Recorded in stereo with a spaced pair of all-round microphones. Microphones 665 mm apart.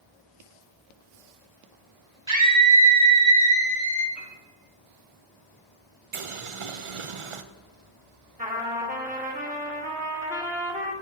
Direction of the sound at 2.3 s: 40° right (ahead or behind).